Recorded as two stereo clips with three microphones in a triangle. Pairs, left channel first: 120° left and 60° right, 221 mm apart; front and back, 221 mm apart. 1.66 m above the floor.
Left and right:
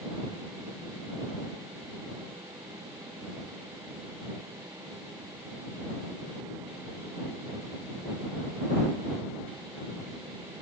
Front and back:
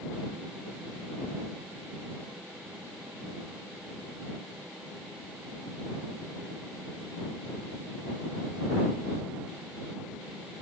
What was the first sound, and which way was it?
Only background noise.